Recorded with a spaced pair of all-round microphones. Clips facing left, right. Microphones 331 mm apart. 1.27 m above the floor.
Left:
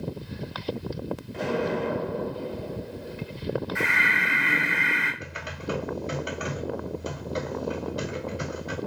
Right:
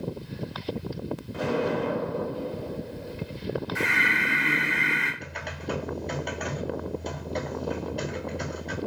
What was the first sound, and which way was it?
An explosion, 10° right (ahead or behind).